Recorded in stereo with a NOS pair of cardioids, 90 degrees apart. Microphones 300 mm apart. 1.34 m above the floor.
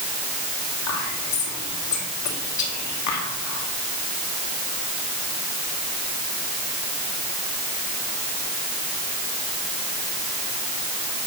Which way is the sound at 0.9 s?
70° left.